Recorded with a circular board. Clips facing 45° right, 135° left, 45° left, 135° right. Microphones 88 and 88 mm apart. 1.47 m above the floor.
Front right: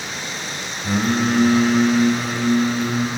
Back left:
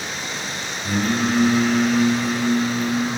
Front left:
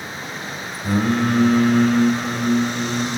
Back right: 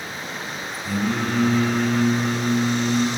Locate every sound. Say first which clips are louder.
0.8 s singing: front right 2 dB, front left 5 dB; 10° left, 1.4 m